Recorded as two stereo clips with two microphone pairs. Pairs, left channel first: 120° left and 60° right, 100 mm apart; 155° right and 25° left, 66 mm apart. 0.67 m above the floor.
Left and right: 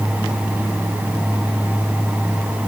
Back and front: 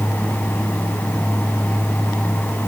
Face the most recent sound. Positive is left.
No sound to turn to.